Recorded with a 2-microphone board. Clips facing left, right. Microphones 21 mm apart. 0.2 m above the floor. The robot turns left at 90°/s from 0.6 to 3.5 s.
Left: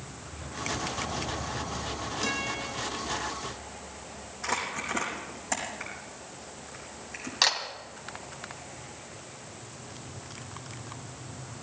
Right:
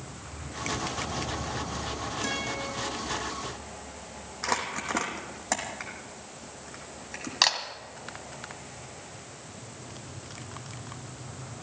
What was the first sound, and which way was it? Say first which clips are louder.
A guitar: left 1 dB; 60° left.